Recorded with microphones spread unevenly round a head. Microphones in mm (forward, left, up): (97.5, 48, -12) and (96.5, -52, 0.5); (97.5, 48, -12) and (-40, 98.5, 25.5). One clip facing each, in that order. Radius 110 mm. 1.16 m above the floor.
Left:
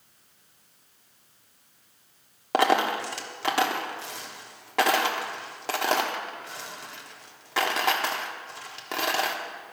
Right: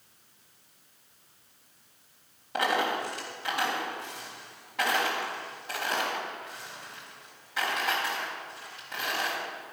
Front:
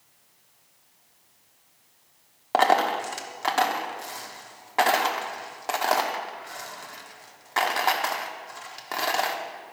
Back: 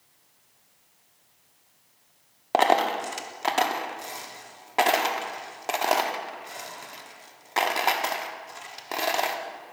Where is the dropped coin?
100° left, 1.2 m.